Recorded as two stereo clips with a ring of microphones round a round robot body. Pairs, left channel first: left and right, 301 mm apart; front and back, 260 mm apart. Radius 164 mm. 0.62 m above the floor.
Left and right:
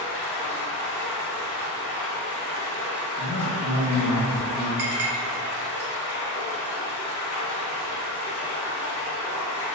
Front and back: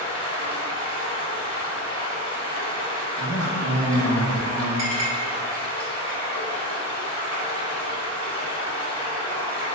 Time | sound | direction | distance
0.0 | running water | 65° left | 1.1 m
3.2 | a man speaking | 55° right | 1.4 m
4.8 | a clink | 145° right | 0.9 m